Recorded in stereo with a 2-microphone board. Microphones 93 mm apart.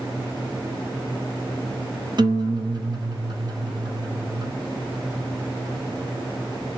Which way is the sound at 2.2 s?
50° right (ahead or behind).